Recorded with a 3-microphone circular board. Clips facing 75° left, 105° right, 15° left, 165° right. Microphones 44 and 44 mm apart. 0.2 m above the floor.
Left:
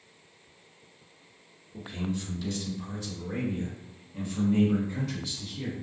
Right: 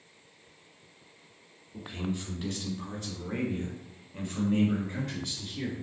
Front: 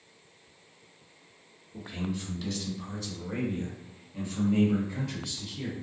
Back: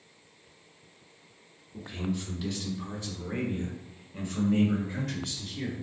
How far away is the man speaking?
About 1.2 m.